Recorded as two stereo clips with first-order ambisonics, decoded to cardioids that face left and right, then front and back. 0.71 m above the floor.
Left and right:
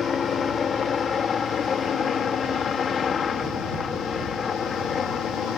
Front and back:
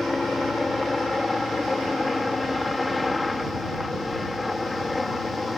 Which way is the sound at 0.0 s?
70° left.